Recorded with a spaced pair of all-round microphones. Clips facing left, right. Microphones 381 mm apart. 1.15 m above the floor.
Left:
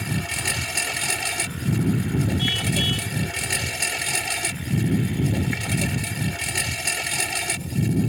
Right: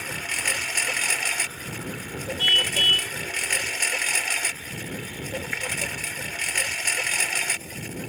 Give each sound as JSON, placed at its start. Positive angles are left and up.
{"t": 0.0, "sound": "a lawn mower", "side_deg": 50}
{"t": 2.4, "sound": "a car horn", "side_deg": -45}